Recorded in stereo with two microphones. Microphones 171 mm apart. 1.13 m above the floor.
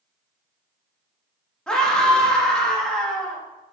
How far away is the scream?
About 2 m.